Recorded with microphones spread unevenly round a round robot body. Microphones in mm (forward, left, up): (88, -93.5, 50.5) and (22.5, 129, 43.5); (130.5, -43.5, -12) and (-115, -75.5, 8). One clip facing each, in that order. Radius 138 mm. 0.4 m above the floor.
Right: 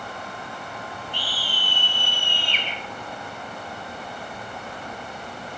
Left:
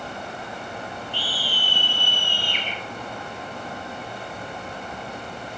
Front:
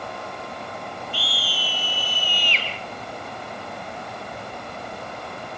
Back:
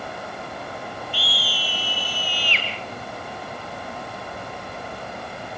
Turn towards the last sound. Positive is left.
turn(degrees=-140)